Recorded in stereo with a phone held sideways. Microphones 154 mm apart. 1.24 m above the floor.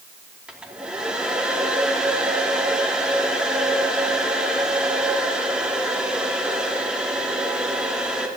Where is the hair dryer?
5° right (ahead or behind), 2.5 m.